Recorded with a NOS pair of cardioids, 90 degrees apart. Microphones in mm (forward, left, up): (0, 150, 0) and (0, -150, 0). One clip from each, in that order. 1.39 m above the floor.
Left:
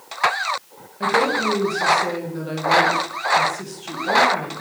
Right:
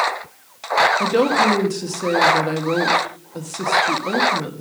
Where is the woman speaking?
40° right, 1.4 m.